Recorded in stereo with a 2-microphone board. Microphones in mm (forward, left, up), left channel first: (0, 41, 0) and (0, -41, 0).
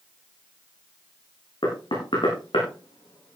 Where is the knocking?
80° left, 9 m.